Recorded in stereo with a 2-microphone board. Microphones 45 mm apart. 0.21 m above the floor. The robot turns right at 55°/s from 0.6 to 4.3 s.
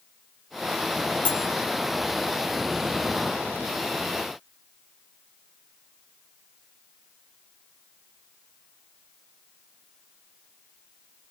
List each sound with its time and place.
1.2 s cutlery clinking: 40° left (ahead or behind), 0.8 m; by 1.5 s 35° left (ahead or behind), 0.8 m